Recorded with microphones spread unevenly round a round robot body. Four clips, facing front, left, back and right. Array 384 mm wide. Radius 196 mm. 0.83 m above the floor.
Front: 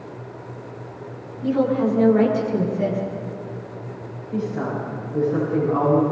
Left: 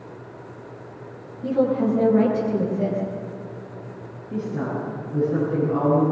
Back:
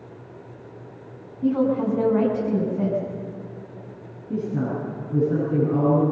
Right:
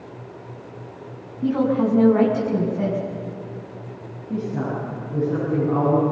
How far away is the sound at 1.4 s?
About 7 m.